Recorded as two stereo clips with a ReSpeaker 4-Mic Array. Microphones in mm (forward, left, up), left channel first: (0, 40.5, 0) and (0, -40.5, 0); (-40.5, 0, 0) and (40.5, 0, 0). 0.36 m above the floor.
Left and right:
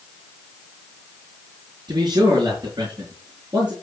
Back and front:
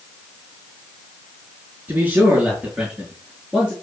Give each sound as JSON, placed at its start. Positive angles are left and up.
{"t": 1.9, "sound": "a man speaking", "azimuth_deg": -80, "distance_m": 5.0}